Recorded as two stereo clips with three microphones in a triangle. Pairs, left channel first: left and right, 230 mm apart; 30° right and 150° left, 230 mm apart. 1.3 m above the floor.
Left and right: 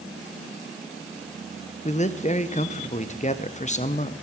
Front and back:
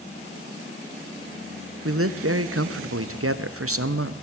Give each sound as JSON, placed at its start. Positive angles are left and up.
{"t": 1.9, "sound": "a man speaking", "azimuth_deg": 145, "distance_m": 0.6}